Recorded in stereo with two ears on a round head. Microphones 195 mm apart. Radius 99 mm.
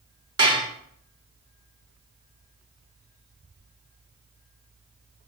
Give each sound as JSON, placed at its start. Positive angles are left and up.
{"t": 0.4, "sound": "dishes clattering", "side_deg": -20, "distance_m": 0.7}